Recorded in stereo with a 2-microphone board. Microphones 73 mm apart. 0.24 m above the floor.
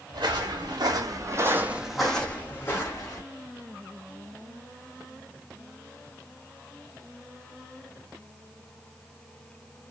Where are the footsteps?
85° right, 1.4 m; by 3.2 s 40° left (ahead or behind), 1.4 m.